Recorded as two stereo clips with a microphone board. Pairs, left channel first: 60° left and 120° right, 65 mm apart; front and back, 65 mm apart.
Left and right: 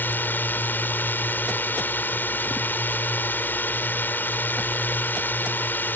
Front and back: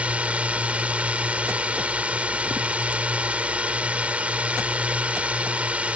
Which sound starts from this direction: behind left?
A drone, at 0.0 s.